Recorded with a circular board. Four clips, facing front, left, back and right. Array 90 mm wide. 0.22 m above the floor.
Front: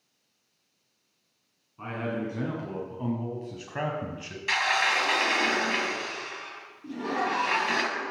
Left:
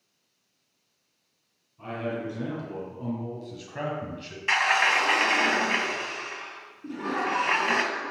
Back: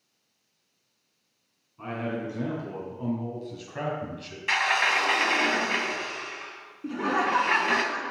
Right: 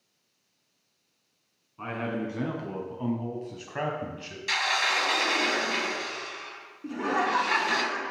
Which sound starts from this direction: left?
A sliding door, at 4.5 s.